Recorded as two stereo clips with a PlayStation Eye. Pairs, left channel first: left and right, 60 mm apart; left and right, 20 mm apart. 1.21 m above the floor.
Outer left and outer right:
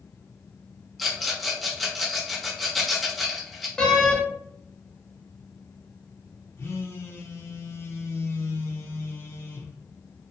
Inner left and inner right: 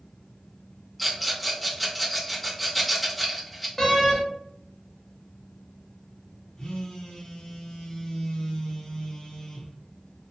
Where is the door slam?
15° left (ahead or behind), 0.6 m.